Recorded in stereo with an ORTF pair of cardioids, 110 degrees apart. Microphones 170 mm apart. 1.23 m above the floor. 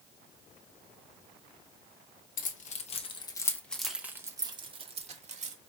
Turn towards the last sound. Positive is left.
turn(degrees=-45)